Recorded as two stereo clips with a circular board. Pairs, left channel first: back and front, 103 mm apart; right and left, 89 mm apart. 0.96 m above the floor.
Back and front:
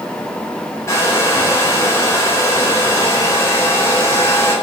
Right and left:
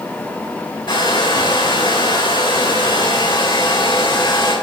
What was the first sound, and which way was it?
A hair dryer, 120° right.